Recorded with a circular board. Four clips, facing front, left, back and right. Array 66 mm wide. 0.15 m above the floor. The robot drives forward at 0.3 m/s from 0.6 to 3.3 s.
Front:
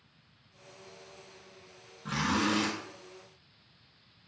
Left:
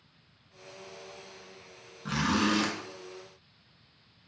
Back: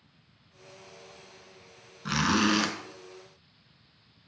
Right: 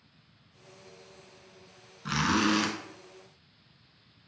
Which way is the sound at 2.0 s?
160° right.